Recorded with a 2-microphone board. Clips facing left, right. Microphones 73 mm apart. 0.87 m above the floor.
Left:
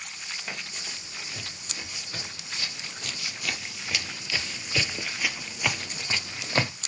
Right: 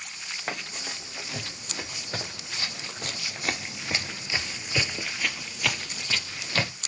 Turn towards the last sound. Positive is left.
turn(degrees=25)  # may be behind; listen again after turning